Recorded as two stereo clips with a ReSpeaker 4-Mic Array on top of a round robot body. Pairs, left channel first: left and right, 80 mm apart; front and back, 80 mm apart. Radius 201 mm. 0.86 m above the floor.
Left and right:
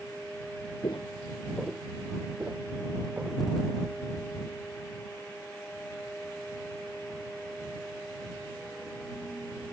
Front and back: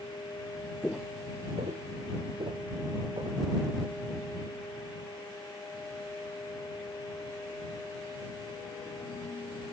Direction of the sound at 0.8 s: 70° left.